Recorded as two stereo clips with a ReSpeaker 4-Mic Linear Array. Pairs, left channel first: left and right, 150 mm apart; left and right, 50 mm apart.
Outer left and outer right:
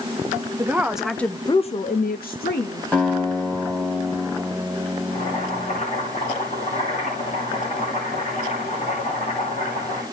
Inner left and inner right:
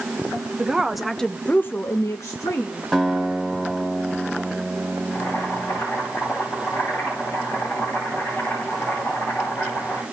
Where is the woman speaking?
15° right (ahead or behind), 1.1 m; by 2.8 s 75° left (ahead or behind), 1.2 m.